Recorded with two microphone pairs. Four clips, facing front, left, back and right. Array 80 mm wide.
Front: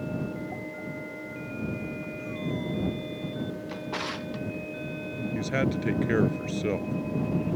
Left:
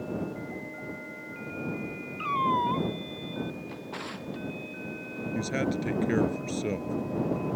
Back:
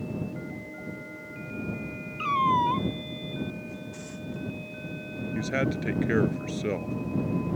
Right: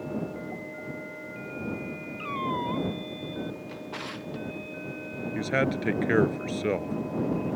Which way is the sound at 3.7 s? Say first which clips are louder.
Right 1 dB, front 6 dB; 15° left.